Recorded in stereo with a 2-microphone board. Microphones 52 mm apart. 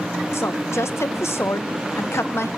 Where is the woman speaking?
55° left (ahead or behind), 0.5 m.